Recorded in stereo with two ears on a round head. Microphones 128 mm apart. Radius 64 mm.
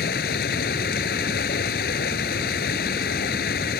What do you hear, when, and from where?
0.0 s running water: 75° left (ahead or behind)